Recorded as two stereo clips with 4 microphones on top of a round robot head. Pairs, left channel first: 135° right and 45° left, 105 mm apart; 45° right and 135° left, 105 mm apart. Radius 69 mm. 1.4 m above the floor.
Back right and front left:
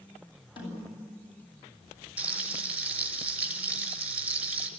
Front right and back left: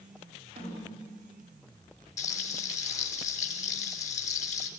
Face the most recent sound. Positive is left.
turn(degrees=-30)